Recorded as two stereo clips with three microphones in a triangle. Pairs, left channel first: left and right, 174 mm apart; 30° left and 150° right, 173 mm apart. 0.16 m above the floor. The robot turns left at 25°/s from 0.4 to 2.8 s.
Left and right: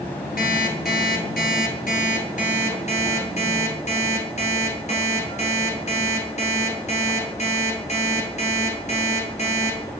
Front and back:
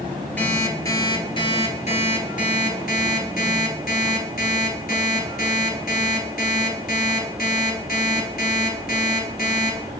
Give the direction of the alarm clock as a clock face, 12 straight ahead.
8 o'clock.